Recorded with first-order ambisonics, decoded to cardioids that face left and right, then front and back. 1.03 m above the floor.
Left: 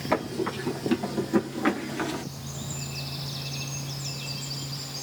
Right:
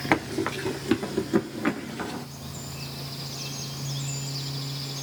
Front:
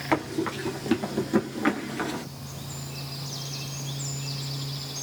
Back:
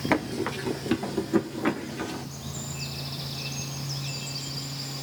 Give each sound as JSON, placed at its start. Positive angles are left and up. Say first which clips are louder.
{"t": 0.1, "sound": "running footsteps", "louder": "right 2 dB, front 1 dB", "azimuth_deg": -105, "distance_m": 1.2}